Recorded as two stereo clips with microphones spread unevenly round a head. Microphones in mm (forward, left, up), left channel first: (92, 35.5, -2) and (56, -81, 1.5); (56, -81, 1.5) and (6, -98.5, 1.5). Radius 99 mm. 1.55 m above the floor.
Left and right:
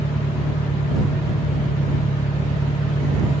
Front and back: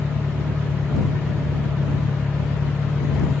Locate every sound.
0.0 s an engine running: 75° left